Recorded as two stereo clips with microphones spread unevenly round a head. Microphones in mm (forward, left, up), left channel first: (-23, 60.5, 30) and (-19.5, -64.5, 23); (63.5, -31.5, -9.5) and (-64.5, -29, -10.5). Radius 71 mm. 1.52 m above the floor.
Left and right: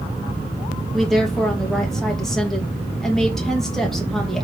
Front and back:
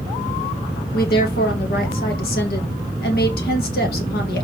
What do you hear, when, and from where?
0.9 s a woman speaking: 5° left, 2 m